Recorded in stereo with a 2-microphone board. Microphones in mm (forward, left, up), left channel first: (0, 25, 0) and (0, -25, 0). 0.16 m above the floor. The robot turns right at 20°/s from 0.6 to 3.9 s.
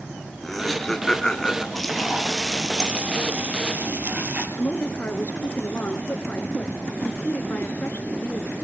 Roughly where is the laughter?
Centre.